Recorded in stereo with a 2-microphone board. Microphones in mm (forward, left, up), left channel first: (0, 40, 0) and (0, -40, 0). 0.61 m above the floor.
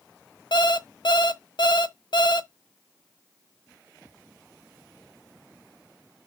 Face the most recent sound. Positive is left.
turn(degrees=65)  # may be behind; listen again after turning